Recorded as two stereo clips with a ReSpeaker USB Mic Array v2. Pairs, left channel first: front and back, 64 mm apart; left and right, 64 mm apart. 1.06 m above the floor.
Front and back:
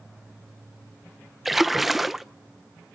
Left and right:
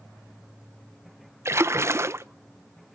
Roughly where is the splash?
Right.